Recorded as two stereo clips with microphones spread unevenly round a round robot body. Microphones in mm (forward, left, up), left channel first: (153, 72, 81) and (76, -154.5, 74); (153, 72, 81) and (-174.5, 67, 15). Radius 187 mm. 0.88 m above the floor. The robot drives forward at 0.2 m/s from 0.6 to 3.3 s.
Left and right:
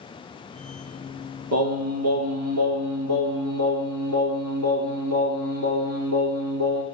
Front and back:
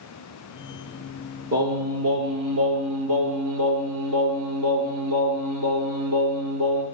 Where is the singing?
130° right, 3 m; by 6.8 s 135° right, 3.5 m.